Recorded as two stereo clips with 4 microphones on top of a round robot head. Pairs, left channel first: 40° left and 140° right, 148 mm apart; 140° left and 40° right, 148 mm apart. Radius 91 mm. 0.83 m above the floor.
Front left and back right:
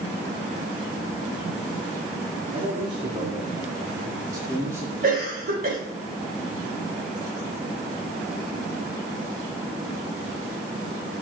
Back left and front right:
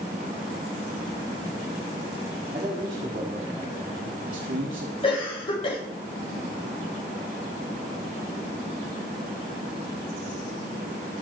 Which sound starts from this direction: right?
A man speaking, at 2.5 s.